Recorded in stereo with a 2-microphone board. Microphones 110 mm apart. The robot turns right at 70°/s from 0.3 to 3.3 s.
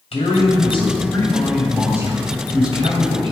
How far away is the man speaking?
About 2.5 m.